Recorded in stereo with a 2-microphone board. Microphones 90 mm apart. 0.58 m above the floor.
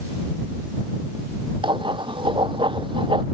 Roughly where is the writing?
Right.